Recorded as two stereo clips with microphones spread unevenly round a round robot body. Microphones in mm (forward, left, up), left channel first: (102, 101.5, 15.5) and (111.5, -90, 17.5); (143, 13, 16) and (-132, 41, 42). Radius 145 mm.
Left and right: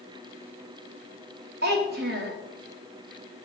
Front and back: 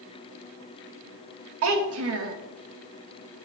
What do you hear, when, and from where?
1.6 s a child speaking: 140° right, 1.0 m